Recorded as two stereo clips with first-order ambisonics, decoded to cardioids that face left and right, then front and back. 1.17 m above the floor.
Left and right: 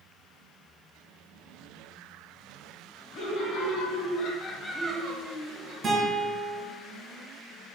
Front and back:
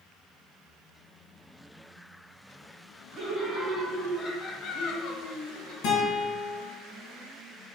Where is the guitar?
25° right, 1.6 m.